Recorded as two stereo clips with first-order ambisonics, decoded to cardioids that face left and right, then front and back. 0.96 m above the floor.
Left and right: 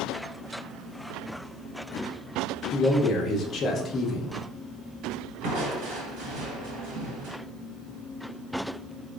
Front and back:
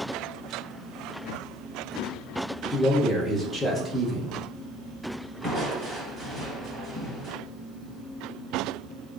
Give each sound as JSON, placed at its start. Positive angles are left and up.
{"t": 2.7, "sound": "a man speaking", "azimuth_deg": 80, "distance_m": 0.8}
{"t": 5.4, "sound": "crushing", "azimuth_deg": -95, "distance_m": 2.0}